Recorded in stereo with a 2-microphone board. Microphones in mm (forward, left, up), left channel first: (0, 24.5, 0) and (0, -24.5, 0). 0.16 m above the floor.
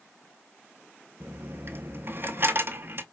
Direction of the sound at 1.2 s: 50° right (ahead or behind).